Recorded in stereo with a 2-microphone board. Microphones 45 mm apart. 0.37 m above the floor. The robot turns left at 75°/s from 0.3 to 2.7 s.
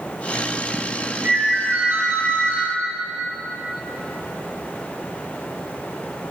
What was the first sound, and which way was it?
A ringtone, 45° right.